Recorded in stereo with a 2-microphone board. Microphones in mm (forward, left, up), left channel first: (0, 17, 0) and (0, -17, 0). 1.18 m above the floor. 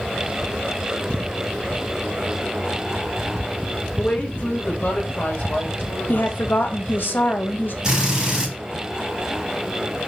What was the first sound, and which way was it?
A woman speaking, 45° left (ahead or behind).